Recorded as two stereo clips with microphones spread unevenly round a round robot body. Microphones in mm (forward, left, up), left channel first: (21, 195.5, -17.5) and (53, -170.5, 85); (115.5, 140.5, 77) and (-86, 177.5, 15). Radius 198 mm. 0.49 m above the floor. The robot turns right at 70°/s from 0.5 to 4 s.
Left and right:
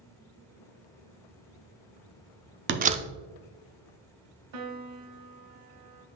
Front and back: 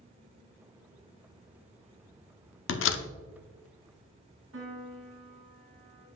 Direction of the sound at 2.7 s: 20° right.